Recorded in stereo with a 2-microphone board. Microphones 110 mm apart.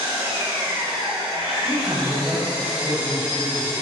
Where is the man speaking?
10° right (ahead or behind), 1.1 m.